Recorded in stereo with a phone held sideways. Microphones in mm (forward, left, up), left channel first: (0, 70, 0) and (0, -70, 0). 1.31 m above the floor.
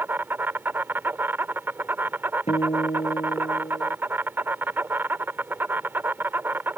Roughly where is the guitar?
Left.